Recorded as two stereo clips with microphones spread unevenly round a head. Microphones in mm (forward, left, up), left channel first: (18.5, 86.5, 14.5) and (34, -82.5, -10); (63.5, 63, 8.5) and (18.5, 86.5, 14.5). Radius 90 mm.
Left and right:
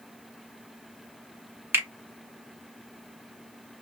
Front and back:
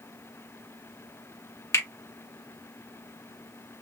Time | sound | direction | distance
1.7 | a finger snap | 5° right | 1.3 m